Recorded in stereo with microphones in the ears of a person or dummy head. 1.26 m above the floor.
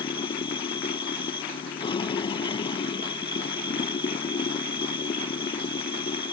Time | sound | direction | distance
0.0 | running water | 35° left (ahead or behind) | ?